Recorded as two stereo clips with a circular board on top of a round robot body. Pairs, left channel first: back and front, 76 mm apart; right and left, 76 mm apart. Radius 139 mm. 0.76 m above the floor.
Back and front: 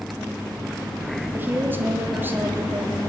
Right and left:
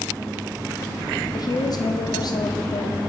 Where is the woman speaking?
65° right, 1.5 m.